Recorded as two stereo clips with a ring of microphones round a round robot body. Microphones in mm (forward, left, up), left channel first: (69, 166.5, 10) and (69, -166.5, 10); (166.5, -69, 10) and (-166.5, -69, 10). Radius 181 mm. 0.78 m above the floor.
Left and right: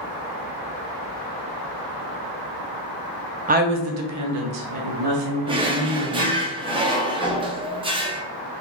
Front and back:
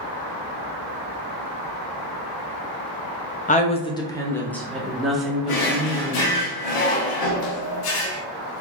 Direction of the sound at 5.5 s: 15° right.